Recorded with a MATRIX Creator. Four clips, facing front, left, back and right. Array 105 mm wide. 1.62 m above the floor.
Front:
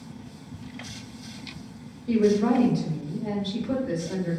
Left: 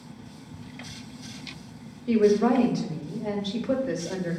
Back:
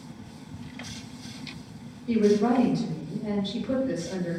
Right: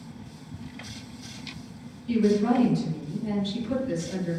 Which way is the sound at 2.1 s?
90° left.